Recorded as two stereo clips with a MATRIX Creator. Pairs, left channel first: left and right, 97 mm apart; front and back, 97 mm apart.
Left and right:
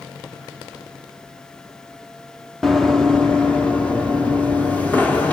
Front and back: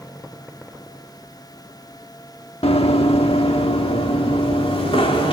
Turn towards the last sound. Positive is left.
turn(degrees=15)